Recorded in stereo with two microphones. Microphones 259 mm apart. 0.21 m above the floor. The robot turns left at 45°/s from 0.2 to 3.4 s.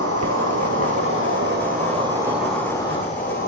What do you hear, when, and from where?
0.0 s an insect: 75° right, 0.8 m; by 3.5 s 140° left, 0.8 m